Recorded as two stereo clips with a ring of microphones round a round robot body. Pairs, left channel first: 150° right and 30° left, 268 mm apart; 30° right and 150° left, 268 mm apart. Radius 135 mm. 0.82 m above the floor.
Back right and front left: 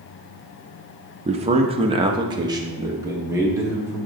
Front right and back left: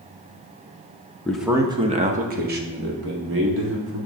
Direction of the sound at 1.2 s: 45° left.